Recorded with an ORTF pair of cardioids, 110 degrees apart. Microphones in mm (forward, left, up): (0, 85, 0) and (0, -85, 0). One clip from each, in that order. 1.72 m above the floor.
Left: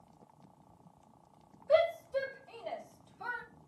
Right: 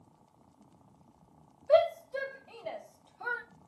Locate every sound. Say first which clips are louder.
1.7 s a shout: right 3 dB; 20° right, 2.0 m; by 3.4 s 10° right, 1.1 m